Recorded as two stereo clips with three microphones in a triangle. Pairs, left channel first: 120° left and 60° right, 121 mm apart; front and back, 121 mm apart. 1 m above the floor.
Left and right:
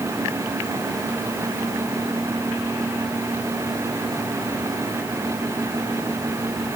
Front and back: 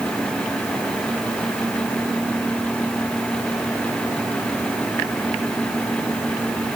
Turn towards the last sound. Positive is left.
No sound to turn to.